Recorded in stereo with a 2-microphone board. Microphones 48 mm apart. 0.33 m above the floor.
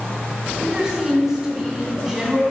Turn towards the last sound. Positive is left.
turn(degrees=-15)  # may be behind; listen again after turning